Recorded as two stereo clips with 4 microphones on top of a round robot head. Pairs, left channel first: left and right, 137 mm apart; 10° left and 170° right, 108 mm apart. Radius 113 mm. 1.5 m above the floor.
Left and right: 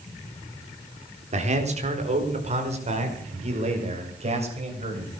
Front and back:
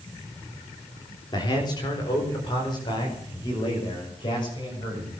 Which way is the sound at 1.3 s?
50° right.